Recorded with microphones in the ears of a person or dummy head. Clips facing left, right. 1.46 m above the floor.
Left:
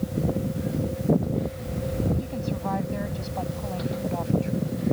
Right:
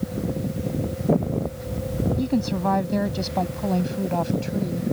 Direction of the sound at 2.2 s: 65° right (ahead or behind).